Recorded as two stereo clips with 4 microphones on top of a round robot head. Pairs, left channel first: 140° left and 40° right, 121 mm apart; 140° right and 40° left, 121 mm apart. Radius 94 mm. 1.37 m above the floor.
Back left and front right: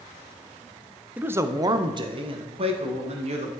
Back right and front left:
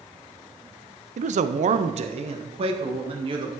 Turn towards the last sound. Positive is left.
turn(degrees=-5)